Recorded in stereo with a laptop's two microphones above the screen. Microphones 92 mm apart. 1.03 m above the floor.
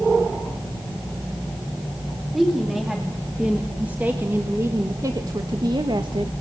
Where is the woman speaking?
Centre (ahead or behind), 2.5 m; by 6.3 s 65° right (ahead or behind), 1.3 m.